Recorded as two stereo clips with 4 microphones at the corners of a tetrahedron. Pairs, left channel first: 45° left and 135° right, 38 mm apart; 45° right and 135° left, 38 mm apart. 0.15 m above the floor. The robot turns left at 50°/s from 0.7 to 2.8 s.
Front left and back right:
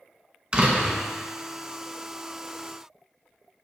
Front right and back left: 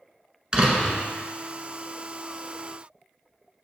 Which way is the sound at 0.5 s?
175° right.